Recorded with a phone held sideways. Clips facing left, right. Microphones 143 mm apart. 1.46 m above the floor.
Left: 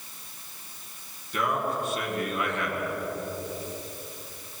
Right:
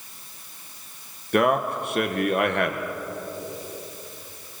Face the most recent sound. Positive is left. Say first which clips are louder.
# right 7 dB
turn(degrees=-75)  # may be behind; listen again after turning